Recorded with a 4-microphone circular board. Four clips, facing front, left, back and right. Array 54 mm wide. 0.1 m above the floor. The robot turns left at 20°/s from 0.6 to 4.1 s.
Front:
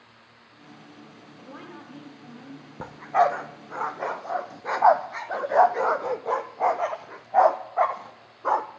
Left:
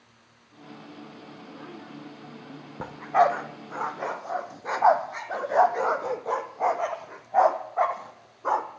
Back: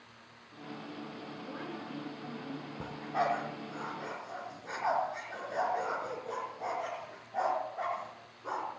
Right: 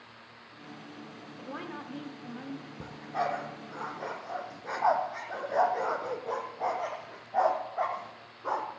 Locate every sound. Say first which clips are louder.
1.4 s a woman speaking: right 5 dB, front 1 dB; 75° right, 6.5 m; by 2.7 s 100° right, 6.5 m
2.8 s a dog barking: left 12 dB, front 11 dB; 55° left, 1.6 m; by 8.7 s 25° left, 1.6 m